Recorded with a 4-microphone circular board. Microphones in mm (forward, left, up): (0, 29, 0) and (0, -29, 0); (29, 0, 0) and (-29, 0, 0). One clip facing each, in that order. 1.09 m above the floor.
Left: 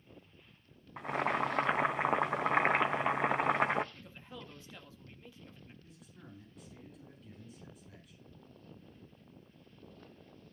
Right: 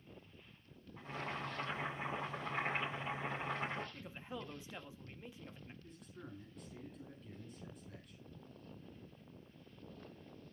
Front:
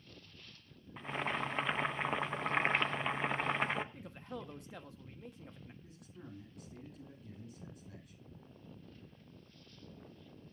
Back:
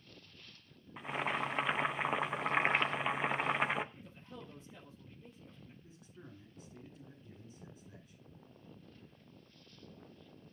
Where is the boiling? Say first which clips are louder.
Left 11 dB, back 1 dB; 95° left, 0.8 m.